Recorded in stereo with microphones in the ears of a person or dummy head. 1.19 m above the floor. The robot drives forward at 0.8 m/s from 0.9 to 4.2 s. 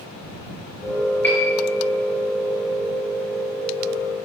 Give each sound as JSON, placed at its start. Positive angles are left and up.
{"t": 1.2, "sound": "a piano", "side_deg": 10, "distance_m": 5.0}